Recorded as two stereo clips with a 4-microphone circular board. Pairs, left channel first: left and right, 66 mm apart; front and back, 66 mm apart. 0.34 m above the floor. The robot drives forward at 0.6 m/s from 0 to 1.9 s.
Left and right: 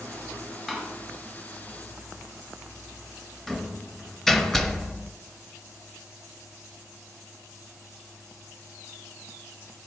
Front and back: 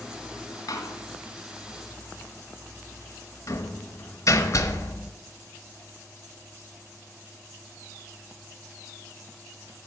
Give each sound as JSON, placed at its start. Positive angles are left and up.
{"t": 0.7, "sound": "a door slam", "azimuth_deg": 5, "distance_m": 1.5}